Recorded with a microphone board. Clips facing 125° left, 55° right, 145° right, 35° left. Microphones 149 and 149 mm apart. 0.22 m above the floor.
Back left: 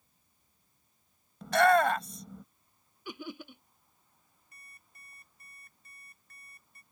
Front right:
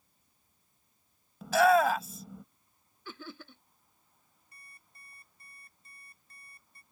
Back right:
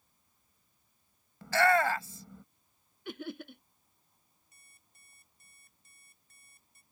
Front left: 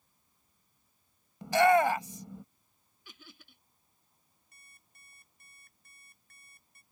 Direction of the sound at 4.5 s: 5° left.